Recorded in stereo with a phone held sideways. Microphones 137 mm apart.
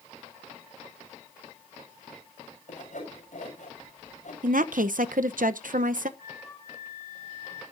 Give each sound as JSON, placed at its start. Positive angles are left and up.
{"t": 2.7, "sound": "sawing", "side_deg": 65, "distance_m": 6.5}
{"t": 4.4, "sound": "a woman speaking", "side_deg": -80, "distance_m": 0.8}
{"t": 6.2, "sound": "a flute", "side_deg": 15, "distance_m": 6.0}